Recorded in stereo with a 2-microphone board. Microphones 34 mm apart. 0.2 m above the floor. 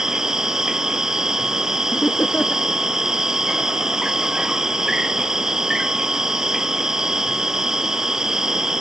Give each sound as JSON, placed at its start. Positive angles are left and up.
{"t": 0.0, "sound": "an insect", "side_deg": -15}
{"t": 1.9, "sound": "laughter", "side_deg": 55}